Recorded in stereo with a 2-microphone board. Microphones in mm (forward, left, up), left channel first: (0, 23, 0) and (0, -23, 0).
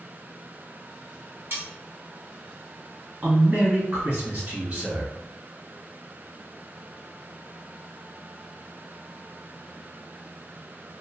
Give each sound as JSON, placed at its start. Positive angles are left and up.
{"t": 1.5, "sound": "cutlery clinking", "side_deg": -65, "distance_m": 1.4}
{"t": 3.2, "sound": "a man speaking", "side_deg": -35, "distance_m": 1.6}